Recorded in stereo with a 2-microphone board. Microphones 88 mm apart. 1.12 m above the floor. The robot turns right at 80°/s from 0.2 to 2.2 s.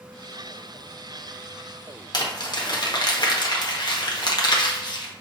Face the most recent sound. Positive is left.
turn(degrees=55)  # may be behind; listen again after turning